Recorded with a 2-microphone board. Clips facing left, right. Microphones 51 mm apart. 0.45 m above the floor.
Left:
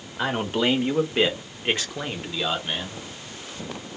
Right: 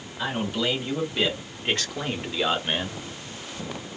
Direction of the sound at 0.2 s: 55° left (ahead or behind).